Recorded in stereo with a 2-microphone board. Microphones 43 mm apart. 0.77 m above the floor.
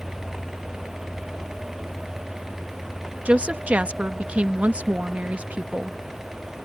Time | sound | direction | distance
3.2 | a woman speaking | 30° right (ahead or behind) | ?